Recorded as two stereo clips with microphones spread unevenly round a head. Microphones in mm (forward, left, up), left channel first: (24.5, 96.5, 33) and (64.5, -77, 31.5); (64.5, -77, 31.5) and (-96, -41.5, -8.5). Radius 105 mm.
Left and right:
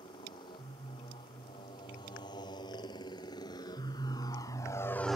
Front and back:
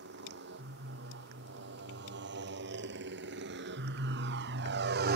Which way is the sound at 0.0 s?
175° left.